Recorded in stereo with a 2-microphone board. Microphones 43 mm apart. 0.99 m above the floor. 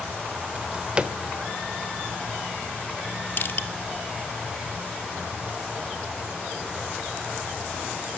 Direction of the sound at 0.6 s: 20° right (ahead or behind).